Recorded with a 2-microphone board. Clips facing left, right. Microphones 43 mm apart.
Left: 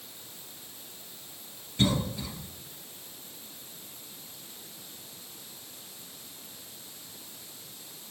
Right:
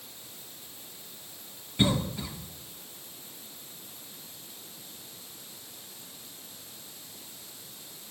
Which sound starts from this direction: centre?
A cough, at 1.8 s.